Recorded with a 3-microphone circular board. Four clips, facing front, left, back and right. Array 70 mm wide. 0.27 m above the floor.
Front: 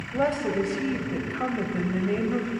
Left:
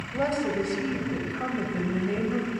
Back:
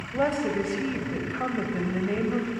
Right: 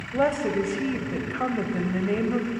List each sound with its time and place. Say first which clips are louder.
0.1 s a woman speaking: right 3 dB, front 1 dB; 95° right, 1.1 m